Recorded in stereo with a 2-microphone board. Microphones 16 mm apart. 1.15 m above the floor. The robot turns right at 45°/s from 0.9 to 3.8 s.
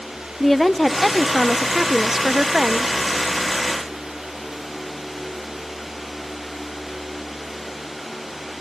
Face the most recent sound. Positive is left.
turn(degrees=-55)